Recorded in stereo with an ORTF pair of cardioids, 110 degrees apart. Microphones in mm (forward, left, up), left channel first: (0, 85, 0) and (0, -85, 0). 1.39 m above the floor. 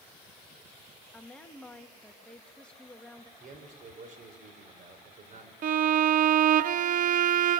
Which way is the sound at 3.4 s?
50° right.